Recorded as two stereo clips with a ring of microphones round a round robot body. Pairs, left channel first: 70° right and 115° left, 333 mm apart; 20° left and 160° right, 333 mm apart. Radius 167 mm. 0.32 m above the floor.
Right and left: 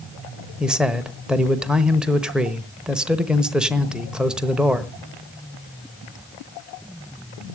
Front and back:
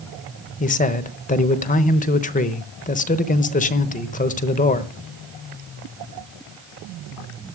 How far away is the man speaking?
About 1.0 m.